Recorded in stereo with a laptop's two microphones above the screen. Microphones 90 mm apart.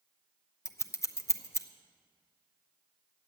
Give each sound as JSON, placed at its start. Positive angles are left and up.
{"t": 0.7, "sound": "scissors", "side_deg": 35, "distance_m": 0.7}